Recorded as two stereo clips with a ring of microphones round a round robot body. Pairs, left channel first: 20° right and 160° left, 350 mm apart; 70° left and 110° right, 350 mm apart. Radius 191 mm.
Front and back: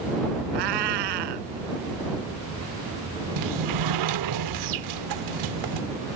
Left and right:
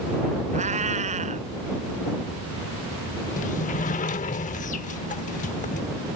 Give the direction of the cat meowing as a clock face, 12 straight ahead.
6 o'clock.